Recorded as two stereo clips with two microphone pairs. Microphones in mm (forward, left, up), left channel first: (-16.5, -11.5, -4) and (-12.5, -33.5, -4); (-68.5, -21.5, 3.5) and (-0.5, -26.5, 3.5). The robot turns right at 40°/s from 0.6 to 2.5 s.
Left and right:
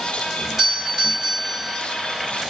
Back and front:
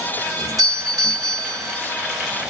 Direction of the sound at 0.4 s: 15° right.